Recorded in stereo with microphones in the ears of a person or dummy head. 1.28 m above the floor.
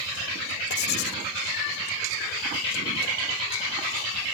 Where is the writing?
60° left (ahead or behind).